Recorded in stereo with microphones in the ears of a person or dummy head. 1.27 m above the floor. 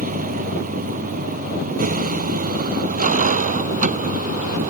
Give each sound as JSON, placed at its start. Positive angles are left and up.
{"t": 0.0, "sound": "a vehicle", "side_deg": -45}